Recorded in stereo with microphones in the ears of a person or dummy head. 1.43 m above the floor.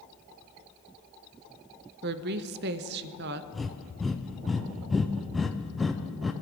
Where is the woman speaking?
50° right (ahead or behind), 0.6 m.